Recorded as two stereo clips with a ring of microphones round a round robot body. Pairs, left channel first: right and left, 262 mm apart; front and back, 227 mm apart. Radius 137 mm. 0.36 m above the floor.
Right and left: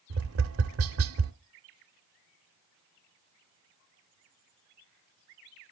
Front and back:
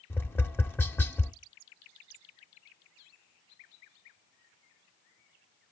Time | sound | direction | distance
0.1 | tapping | 80° left | 0.9 m